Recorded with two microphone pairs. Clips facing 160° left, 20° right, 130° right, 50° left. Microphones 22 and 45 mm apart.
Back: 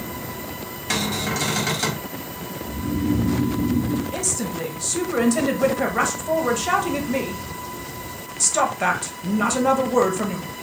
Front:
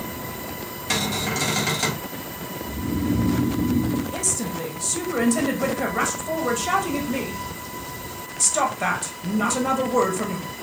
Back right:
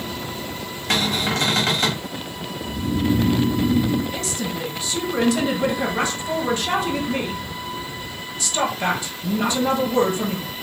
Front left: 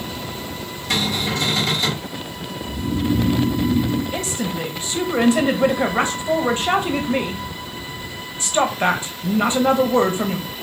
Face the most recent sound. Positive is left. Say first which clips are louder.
# back 1 dB, front left 2 dB
turn(degrees=90)